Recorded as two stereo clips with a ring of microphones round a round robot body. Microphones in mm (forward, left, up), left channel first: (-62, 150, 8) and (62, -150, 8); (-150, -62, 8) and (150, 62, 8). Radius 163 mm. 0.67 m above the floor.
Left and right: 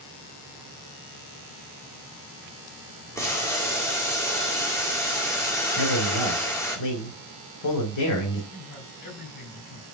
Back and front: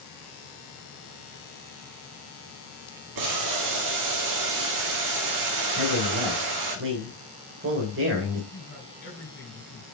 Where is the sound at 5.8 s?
75° left, 2 m.